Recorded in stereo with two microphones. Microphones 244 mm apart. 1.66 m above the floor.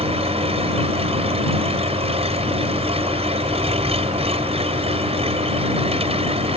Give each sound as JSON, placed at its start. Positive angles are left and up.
{"t": 0.0, "sound": "an engine running", "side_deg": -25}